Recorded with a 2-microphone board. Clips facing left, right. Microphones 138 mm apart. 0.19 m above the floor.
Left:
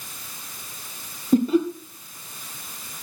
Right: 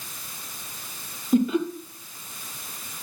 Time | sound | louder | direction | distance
1.3 | laughter | left 3 dB | 35° left (ahead or behind) | 3 m